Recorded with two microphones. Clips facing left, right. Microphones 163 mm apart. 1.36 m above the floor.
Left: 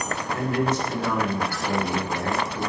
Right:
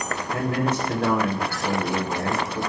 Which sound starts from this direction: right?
A man speaking, at 0.3 s.